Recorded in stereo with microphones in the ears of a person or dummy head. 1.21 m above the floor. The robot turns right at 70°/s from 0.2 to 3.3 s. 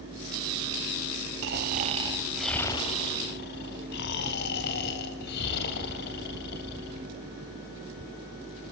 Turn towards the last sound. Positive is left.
turn(degrees=60)